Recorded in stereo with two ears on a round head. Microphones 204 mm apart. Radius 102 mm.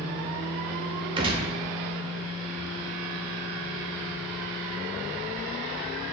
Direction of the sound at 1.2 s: 20° right (ahead or behind).